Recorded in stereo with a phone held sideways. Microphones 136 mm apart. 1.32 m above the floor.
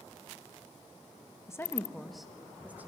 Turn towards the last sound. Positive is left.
turn(degrees=-15)  # may be behind; listen again after turning